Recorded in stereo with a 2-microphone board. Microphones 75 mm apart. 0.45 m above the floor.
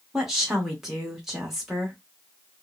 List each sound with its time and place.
0.1 s a woman speaking: 5° right (ahead or behind), 1.0 m